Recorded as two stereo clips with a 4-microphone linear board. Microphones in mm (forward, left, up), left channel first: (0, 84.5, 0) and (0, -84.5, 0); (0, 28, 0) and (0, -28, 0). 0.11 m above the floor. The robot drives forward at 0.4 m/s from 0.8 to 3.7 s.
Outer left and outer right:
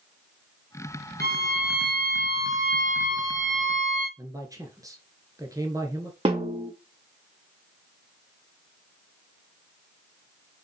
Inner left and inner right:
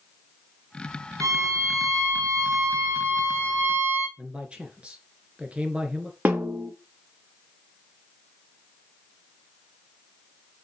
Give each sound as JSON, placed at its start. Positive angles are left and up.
{"t": 1.2, "sound": "a violin", "side_deg": -70, "distance_m": 1.5}
{"t": 4.2, "sound": "a man speaking", "side_deg": -20, "distance_m": 1.7}
{"t": 6.2, "sound": "a snare drum", "side_deg": -35, "distance_m": 2.5}